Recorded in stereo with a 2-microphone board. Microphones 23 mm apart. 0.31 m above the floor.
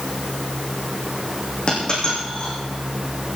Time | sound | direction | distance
1.7 | a dropped coin | 35° left (ahead or behind) | 7.5 m